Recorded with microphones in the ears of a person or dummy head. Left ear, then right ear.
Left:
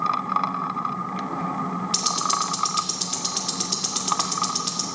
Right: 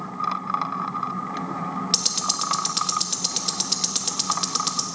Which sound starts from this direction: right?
Ticking, at 1.9 s.